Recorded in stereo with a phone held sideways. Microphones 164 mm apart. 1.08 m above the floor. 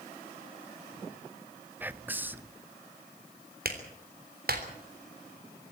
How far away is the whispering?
About 0.6 m.